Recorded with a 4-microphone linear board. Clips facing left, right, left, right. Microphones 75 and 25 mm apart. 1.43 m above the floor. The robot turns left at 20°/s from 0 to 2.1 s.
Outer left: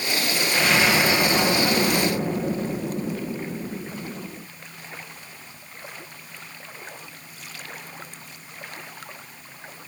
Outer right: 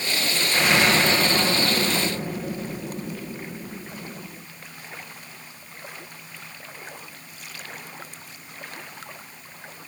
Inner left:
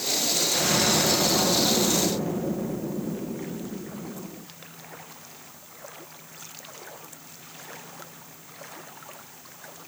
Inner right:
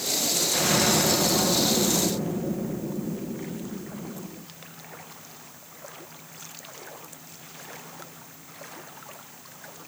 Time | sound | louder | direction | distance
0.5 | an explosion | outer right 1 dB, inner right 1 dB | 170° right | ?